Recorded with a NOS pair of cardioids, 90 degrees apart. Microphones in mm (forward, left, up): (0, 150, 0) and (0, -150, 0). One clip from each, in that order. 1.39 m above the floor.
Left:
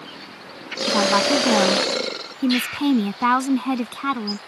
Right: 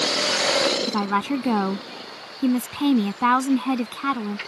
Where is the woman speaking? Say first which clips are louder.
Left 6 dB; 5° left.